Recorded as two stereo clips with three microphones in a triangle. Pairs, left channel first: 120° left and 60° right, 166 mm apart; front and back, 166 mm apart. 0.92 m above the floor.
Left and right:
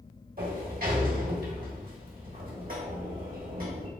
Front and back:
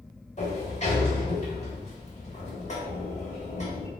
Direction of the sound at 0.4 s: 40° right.